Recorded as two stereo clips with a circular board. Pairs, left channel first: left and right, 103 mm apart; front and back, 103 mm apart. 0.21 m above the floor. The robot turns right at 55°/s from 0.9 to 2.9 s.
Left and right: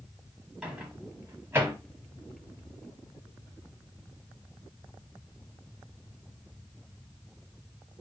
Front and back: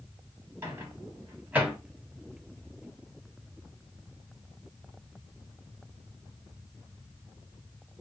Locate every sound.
0.6 s a microwave: 160° right, 1.0 m; by 1.8 s 115° right, 1.0 m